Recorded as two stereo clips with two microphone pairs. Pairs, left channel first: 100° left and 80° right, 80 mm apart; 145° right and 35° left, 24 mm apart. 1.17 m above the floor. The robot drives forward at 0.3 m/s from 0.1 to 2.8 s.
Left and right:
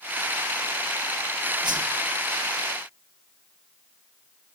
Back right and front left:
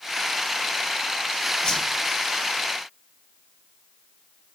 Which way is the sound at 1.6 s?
95° right.